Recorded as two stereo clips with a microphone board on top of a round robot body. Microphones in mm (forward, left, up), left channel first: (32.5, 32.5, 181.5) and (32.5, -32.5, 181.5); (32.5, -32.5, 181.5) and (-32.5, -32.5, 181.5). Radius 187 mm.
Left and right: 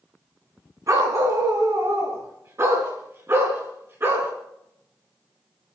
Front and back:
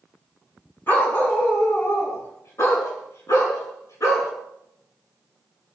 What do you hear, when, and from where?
0.9 s a dog barking: 60° right, 3.5 m; by 4.3 s 40° right, 5.5 m